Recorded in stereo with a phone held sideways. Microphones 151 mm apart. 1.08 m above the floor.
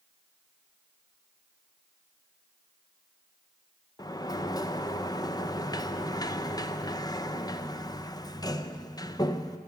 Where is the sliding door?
25° left (ahead or behind), 0.5 m.